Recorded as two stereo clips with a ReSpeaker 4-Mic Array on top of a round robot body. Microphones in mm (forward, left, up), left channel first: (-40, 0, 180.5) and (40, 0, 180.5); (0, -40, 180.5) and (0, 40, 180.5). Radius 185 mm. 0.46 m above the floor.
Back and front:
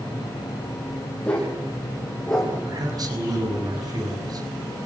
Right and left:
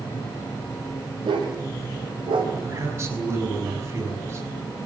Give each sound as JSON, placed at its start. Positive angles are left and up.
{"t": 1.2, "sound": "a dog barking", "azimuth_deg": 100, "distance_m": 10.0}
{"t": 2.6, "sound": "a man speaking", "azimuth_deg": 35, "distance_m": 5.5}